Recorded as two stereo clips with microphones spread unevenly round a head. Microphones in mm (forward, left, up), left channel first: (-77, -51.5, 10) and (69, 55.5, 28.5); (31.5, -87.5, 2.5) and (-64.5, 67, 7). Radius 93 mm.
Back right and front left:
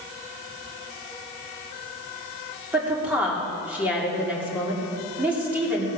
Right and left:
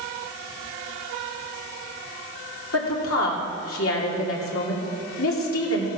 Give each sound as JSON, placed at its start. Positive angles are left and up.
{"t": 2.7, "sound": "a woman speaking", "azimuth_deg": -45, "distance_m": 3.0}